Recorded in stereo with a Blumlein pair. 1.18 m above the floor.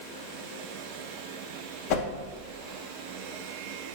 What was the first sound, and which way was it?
A whoosh, 45° left.